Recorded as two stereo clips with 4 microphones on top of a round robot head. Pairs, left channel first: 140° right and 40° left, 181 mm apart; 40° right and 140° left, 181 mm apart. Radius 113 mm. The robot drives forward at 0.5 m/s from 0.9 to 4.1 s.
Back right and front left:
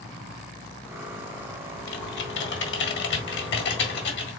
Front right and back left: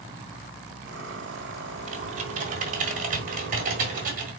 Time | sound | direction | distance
1.9 | typing on a keyboard | 165° right | 1.1 m